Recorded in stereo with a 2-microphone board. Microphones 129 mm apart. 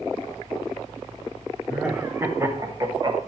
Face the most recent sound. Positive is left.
turn(degrees=-35)  # may be behind; listen again after turning